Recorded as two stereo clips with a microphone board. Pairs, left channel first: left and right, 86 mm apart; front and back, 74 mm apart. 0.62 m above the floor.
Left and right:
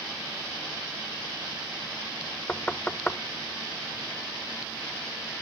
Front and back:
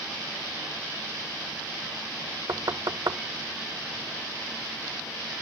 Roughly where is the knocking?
Behind.